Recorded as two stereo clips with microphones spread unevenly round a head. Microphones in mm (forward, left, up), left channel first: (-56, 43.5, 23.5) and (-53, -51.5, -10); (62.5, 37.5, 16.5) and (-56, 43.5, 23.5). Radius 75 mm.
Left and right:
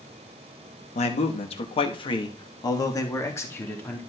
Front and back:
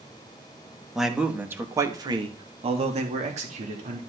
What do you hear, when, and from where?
0.9 s a man speaking: 90° left, 2.5 m; by 4.0 s 160° left, 4 m